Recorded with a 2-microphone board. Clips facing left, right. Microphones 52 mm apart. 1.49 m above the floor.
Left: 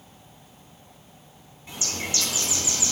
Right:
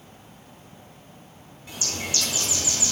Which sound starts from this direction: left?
A bird, at 1.7 s.